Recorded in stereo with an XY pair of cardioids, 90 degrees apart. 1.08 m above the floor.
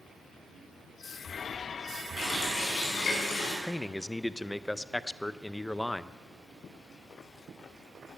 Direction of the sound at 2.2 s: 60° left.